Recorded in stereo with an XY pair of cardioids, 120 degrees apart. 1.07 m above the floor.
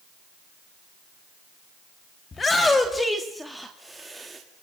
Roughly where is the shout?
Ahead left.